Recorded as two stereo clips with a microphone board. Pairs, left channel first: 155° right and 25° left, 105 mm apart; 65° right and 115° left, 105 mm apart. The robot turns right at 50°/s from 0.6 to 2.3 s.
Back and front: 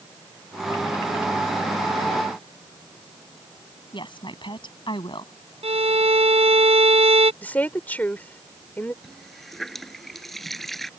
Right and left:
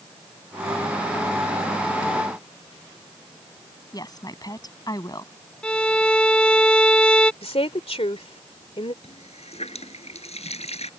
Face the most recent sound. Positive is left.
turn(degrees=-70)